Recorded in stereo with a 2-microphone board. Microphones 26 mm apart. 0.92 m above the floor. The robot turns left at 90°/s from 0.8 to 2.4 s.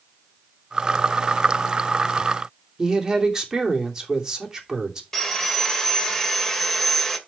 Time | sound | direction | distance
2.8 | a woman speaking | 20° right (ahead or behind) | 3 m
5.1 | sawing | 15° left (ahead or behind) | 1.7 m